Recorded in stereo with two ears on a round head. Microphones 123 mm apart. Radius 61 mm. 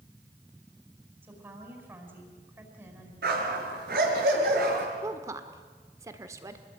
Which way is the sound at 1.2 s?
15° right (ahead or behind).